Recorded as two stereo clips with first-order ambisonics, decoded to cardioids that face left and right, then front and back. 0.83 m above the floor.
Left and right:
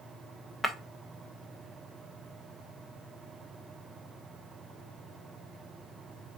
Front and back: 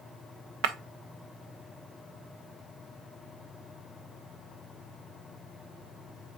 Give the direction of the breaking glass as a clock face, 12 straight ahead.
6 o'clock.